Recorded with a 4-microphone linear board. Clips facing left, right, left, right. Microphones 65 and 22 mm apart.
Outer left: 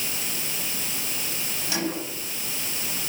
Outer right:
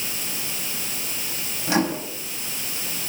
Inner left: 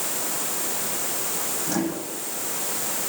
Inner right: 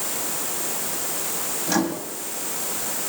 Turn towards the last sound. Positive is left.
turn(degrees=-45)  # may be behind; listen again after turning